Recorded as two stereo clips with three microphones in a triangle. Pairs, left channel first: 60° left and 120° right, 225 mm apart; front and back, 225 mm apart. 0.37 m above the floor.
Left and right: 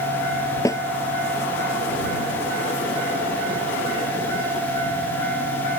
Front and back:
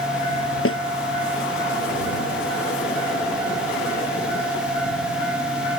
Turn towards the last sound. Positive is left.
turn(degrees=-15)